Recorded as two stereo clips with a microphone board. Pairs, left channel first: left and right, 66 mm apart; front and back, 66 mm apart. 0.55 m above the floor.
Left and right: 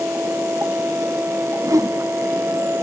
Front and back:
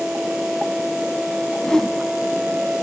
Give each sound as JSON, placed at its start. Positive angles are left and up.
{"t": 1.6, "sound": "a whoosh", "azimuth_deg": -80, "distance_m": 0.6}